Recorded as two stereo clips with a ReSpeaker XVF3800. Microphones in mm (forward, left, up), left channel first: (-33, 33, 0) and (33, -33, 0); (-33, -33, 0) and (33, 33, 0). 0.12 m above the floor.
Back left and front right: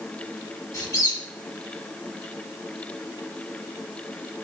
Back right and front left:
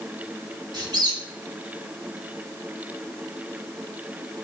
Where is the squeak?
85° left, 0.9 m.